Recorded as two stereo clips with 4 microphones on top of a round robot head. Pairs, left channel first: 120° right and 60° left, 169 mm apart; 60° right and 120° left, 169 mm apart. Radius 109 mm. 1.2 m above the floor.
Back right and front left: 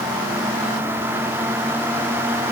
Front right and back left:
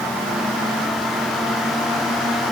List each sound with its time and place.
Only background noise.